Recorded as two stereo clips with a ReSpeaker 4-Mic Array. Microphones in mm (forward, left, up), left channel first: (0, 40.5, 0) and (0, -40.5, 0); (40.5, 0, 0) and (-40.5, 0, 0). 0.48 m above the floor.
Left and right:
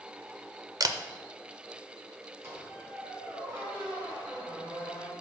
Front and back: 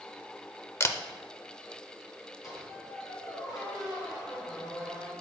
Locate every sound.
0.8 s a camera shutter: 55° right, 0.6 m
2.4 s a squeak: 35° right, 3.5 m